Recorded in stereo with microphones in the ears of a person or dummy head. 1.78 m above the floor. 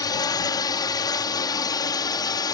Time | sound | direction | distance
0.0 | a drone | 20° left (ahead or behind) | ?